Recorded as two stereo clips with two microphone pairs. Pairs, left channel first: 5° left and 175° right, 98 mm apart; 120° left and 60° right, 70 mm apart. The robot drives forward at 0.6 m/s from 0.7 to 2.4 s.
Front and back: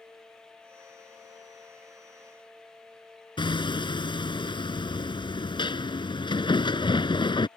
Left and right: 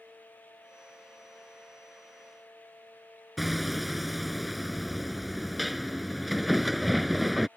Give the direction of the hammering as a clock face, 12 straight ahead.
11 o'clock.